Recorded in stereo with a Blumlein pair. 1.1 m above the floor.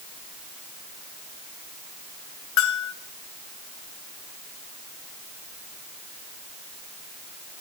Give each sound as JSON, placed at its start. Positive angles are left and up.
{"t": 2.6, "sound": "a bell", "azimuth_deg": 40, "distance_m": 2.5}